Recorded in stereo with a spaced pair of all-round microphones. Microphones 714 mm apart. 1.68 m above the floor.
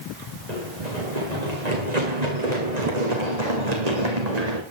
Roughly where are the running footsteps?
Right.